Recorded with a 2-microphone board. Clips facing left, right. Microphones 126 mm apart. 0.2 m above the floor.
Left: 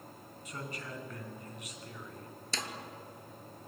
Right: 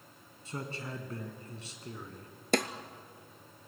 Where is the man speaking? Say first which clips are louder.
Right 3 dB; 35° right (ahead or behind), 2 m.